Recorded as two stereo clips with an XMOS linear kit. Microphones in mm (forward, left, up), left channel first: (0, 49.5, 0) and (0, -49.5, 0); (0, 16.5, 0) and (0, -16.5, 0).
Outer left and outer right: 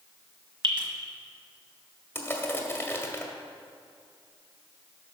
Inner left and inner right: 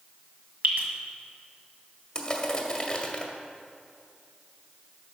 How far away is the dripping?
About 1.7 m.